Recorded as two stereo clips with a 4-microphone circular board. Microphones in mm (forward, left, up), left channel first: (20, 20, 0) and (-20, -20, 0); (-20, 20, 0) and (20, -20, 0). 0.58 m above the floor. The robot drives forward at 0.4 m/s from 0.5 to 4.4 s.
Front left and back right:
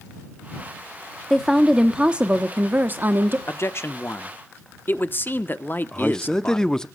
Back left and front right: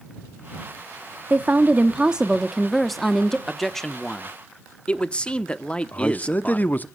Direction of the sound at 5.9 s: 110° left.